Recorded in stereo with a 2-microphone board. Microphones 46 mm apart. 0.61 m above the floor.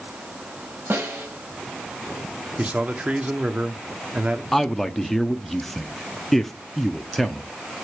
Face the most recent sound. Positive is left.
turn(degrees=5)  # may be behind; listen again after turning